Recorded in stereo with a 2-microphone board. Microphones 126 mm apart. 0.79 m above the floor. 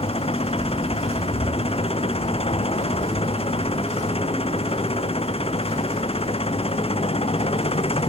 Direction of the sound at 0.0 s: 50° left (ahead or behind).